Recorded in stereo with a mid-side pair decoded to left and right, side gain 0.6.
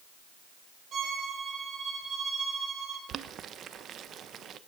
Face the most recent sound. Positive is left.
turn(degrees=-45)